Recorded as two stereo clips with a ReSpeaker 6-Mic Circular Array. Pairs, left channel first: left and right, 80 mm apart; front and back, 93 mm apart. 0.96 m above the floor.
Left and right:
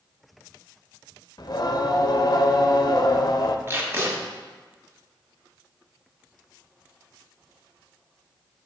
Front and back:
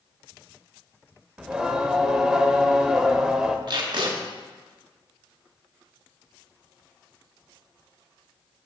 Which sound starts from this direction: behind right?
Tape being pulled, at 3.7 s.